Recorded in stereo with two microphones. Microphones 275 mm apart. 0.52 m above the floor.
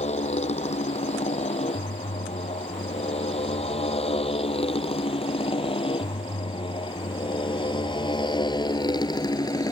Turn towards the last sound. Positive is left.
turn(degrees=15)  # may be behind; listen again after turning